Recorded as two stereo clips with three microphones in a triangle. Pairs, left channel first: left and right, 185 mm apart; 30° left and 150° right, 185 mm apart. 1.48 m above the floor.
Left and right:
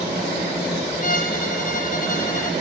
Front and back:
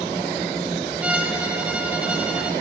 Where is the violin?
130° left, 1.0 m.